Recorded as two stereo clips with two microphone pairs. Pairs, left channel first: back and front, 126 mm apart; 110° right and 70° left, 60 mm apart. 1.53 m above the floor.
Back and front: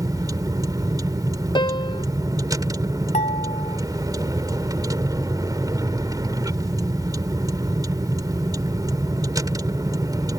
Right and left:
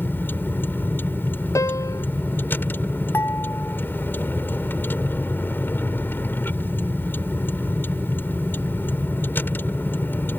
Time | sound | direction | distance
0.0 | a vehicle | 60° right | ?
1.6 | a piano | 130° right | ?
3.1 | dishes clattering | 160° right | ?